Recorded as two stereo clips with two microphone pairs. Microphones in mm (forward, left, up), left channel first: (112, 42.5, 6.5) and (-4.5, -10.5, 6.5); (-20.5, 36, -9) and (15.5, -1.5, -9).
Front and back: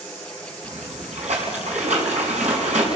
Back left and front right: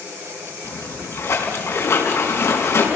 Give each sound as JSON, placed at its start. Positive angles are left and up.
{"t": 0.6, "sound": "a splash", "azimuth_deg": 175, "distance_m": 4.5}